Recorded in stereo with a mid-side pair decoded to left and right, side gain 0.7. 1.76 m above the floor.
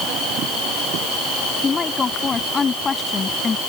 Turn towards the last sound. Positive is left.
turn(degrees=25)